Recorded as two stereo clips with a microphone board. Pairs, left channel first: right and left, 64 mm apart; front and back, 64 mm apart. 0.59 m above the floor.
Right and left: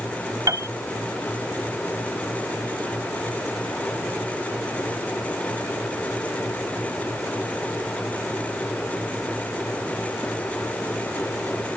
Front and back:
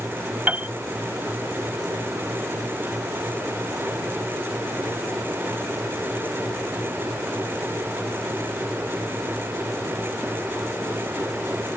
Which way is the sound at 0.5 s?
115° left.